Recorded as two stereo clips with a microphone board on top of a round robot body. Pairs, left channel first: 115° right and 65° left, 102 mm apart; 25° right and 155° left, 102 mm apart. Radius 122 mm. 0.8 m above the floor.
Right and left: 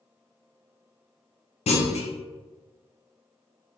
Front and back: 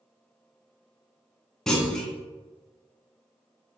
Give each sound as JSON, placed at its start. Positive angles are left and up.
{"t": 1.7, "sound": "a clunk", "azimuth_deg": -110, "distance_m": 0.7}